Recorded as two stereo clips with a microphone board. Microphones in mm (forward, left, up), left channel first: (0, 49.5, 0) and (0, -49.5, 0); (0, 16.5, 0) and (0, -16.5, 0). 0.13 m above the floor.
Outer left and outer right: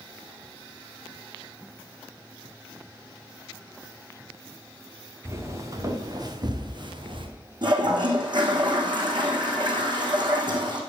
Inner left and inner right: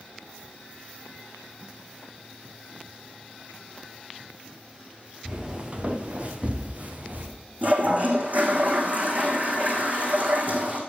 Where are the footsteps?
25° right (ahead or behind), 2 m; by 7.3 s 55° right (ahead or behind), 2 m.